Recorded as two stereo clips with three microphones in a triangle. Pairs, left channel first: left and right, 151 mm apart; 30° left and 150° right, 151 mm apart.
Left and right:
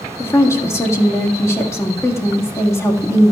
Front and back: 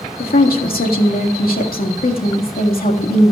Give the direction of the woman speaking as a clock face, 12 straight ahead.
11 o'clock.